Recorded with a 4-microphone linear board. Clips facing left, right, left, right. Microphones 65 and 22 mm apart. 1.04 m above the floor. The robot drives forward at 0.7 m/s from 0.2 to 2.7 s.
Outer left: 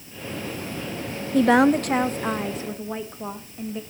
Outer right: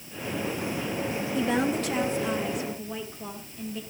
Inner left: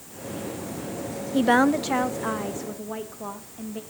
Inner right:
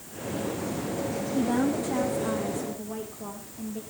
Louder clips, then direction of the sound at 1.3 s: Outer left 10 dB, inner left 7 dB; 70° left (ahead or behind).